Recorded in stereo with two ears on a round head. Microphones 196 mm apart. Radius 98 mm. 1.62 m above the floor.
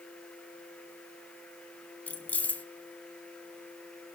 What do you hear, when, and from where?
2.1 s keys jangling: 5° left (ahead or behind), 0.8 m